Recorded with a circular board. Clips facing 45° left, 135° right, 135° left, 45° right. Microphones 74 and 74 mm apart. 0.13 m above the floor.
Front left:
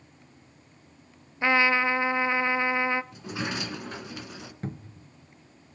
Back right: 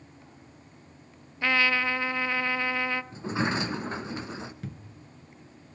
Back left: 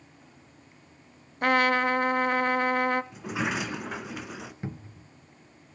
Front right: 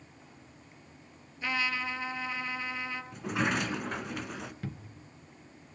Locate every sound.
1.4 s a trumpet: 110° left, 0.6 m
3.1 s a sliding door: 140° right, 1.1 m
4.6 s a cupboard door: 75° left, 0.8 m